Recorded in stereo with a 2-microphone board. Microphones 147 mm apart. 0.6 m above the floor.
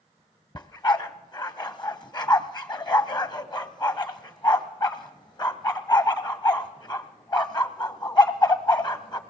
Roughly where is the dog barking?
Left.